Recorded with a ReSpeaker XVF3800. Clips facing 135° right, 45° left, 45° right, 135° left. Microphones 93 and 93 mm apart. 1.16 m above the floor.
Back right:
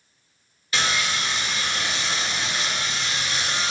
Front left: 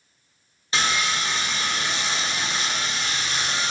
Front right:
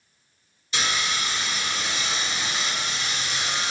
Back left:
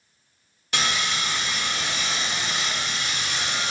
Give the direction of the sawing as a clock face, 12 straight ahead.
8 o'clock.